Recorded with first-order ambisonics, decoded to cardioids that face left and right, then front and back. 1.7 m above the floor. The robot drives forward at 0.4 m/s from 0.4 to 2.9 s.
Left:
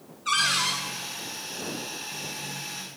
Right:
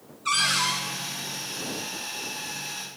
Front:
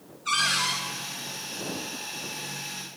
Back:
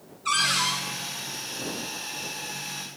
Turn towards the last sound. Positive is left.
turn(degrees=-130)